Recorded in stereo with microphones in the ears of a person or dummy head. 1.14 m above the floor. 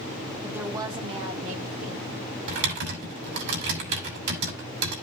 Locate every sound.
0.4 s a woman speaking: 5° right (ahead or behind), 1.3 m; by 2.1 s 45° right (ahead or behind), 3.5 m
2.5 s typing on a keyboard: 60° right (ahead or behind), 3 m